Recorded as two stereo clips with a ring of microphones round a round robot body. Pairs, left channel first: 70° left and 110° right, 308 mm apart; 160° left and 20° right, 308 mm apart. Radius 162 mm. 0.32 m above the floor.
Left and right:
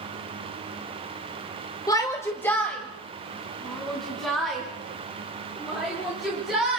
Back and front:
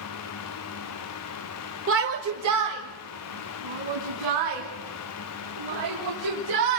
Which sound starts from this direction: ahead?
A shout, at 1.9 s.